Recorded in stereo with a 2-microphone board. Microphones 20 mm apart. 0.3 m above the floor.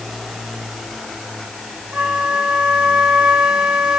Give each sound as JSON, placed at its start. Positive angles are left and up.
{"t": 1.9, "sound": "a flute", "side_deg": -65, "distance_m": 1.8}